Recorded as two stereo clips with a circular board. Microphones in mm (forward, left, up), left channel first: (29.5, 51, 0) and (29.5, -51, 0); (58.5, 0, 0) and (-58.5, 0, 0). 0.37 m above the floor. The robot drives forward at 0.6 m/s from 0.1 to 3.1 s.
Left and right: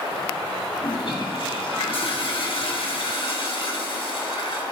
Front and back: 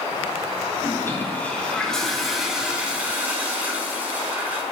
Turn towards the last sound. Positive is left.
turn(degrees=105)